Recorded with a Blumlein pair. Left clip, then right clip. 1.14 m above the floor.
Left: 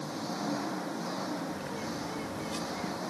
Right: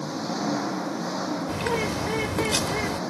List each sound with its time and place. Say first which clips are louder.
0.0 s an engine running: right 7 dB; 20° right
1.5 s a bird: right 11 dB; 50° right